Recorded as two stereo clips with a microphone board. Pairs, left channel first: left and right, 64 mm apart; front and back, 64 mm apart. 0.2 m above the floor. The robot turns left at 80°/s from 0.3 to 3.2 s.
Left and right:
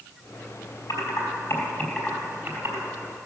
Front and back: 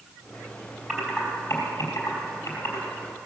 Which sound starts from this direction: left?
Typing on a keyboard, at 0.9 s.